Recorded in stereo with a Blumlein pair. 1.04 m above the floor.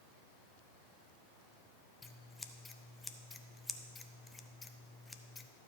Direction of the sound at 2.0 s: 10° left.